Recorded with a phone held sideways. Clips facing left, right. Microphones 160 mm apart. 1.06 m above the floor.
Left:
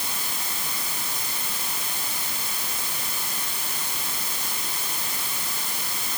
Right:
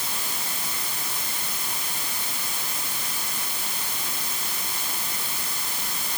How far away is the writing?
I don't hear writing.